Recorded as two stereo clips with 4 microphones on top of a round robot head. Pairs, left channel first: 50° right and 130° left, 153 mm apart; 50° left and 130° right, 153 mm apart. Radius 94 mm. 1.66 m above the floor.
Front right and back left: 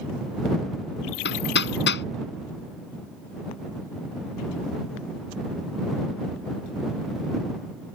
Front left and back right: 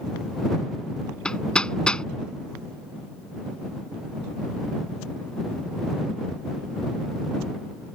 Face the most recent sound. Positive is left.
turn(degrees=-35)